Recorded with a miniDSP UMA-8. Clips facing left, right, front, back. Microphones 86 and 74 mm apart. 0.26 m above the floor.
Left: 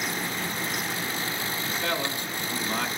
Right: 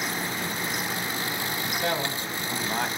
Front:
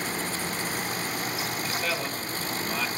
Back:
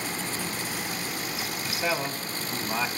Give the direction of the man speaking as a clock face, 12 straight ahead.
4 o'clock.